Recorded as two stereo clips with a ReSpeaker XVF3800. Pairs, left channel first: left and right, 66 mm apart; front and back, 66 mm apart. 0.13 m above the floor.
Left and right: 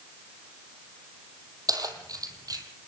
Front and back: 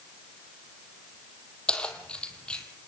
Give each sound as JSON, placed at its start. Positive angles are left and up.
{"t": 1.7, "sound": "keys jangling", "azimuth_deg": -75, "distance_m": 3.0}